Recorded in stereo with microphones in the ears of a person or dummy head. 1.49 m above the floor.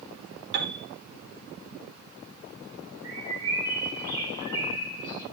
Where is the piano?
60° right (ahead or behind), 1.6 m.